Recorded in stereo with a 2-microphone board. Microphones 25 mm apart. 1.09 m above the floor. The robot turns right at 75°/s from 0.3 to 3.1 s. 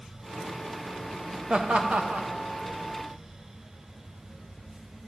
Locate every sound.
1.5 s laughter: 40° right (ahead or behind), 1.0 m; by 2.3 s 70° right (ahead or behind), 1.0 m